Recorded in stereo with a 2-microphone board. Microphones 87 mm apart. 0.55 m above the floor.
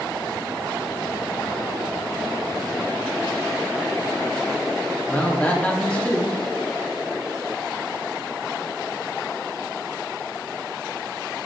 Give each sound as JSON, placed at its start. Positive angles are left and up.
{"t": 5.1, "sound": "a man speaking", "side_deg": 15, "distance_m": 0.6}